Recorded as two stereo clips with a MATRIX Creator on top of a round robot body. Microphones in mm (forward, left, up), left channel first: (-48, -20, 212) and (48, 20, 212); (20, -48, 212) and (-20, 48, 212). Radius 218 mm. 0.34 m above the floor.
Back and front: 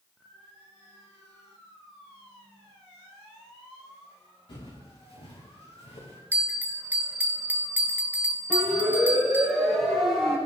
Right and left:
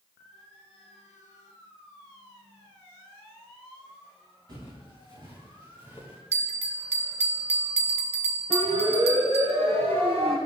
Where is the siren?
115° left, 7.5 m.